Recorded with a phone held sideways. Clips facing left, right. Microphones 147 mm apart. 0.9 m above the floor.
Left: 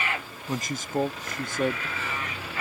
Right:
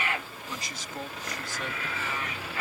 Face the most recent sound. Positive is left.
turn(degrees=65)  # may be behind; listen again after turning